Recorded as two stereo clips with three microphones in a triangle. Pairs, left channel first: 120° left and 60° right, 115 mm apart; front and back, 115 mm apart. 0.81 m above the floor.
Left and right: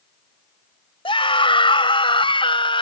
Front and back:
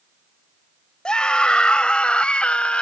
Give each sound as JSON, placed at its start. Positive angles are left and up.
{"t": 1.1, "sound": "a scream", "azimuth_deg": 80}